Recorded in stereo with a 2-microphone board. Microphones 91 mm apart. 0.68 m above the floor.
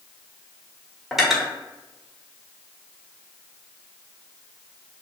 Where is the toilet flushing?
No toilet flushing in this recording.